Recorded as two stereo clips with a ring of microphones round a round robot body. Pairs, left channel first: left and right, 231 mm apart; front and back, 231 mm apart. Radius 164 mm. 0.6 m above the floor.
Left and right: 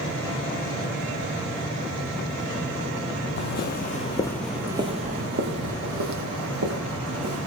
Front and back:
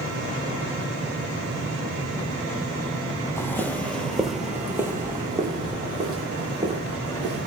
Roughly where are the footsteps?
Left.